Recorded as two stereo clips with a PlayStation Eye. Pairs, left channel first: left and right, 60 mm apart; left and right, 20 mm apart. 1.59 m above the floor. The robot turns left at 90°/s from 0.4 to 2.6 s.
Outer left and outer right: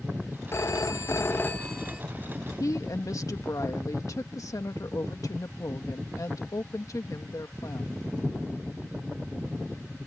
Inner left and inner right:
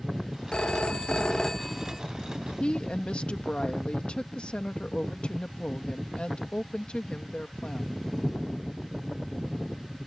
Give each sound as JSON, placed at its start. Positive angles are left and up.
{"t": 0.5, "sound": "a phone ringing", "azimuth_deg": 120}
{"t": 2.6, "sound": "a woman speaking", "side_deg": 70}